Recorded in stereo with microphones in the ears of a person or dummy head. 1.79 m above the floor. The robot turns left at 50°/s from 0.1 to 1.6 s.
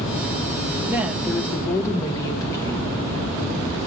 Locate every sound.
0.9 s a woman speaking: 170° right, 1.2 m; by 3.0 s 155° left, 1.2 m